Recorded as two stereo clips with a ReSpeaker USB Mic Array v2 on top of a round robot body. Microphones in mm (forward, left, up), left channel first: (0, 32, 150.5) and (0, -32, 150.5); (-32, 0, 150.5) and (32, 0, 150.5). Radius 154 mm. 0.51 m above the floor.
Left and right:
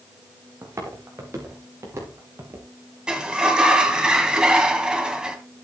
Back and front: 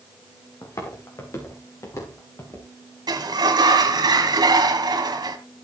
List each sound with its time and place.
0.6 s footsteps: 140° right, 5.5 m
3.1 s a sliding door: 15° right, 1.8 m